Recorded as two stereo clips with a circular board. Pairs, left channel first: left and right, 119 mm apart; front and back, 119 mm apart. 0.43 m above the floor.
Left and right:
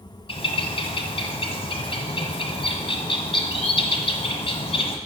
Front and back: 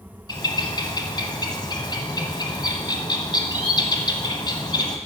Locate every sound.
0.3 s a bird: 50° left, 1.2 m